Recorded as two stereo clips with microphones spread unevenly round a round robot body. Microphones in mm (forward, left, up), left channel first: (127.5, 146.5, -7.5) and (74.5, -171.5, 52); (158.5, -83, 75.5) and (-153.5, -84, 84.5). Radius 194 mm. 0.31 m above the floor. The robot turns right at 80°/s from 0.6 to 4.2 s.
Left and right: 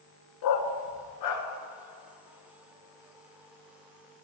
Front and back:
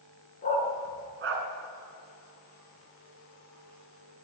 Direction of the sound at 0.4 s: 70° left.